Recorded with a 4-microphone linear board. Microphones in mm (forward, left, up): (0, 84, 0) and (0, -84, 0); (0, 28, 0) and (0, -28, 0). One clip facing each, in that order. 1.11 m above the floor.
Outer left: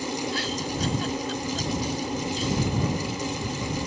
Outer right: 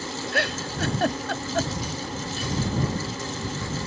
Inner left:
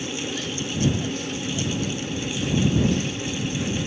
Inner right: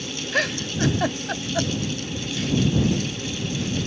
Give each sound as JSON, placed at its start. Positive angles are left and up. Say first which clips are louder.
{"t": 0.3, "sound": "a giggle", "louder": "outer right 1 dB, inner right 4 dB", "side_deg": -80}